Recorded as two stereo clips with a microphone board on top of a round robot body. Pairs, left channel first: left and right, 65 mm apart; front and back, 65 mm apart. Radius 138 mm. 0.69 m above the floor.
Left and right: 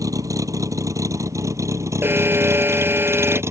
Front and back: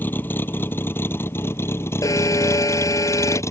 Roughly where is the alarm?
Ahead right.